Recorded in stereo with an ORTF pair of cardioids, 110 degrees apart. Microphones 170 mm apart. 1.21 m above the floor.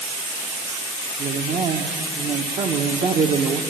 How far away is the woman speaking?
About 0.9 m.